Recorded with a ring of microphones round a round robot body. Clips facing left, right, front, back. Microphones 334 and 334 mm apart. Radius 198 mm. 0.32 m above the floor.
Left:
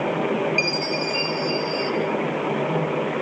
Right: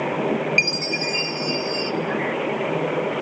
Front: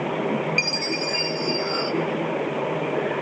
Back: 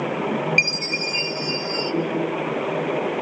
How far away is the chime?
About 1.1 m.